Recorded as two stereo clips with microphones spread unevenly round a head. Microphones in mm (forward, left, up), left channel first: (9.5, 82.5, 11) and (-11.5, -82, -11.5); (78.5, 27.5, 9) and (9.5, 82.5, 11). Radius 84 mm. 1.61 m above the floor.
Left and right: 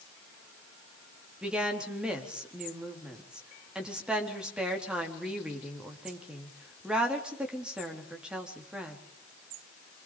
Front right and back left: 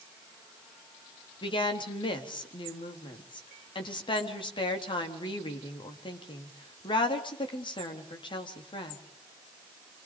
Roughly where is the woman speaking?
Ahead.